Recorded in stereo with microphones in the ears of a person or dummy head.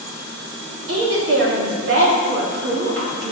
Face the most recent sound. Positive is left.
turn(degrees=-70)  # may be behind; listen again after turning